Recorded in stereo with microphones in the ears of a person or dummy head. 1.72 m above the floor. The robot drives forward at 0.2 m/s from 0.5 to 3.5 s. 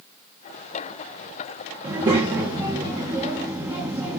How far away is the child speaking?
About 1.3 m.